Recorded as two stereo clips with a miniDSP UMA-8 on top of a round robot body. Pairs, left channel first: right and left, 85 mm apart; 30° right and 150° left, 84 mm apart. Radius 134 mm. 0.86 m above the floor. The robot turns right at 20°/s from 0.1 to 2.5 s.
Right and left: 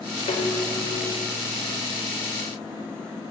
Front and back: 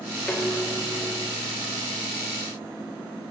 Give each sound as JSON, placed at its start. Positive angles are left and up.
{"t": 0.3, "sound": "dishes clattering", "azimuth_deg": -105, "distance_m": 2.0}